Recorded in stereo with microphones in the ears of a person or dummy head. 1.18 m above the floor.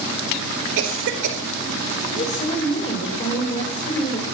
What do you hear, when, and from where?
0.8 s a cough: 65° right (ahead or behind), 4 m
2.1 s a woman speaking: 30° left (ahead or behind), 4.5 m